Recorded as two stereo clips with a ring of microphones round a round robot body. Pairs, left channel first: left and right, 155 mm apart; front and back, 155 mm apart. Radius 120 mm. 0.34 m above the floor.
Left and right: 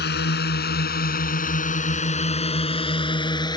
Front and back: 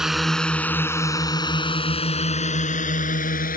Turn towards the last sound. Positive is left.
turn(degrees=25)